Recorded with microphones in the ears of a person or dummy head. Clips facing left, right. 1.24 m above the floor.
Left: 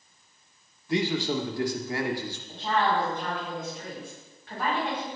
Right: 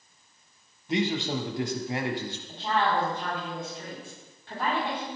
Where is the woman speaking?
25° right (ahead or behind), 3.5 m.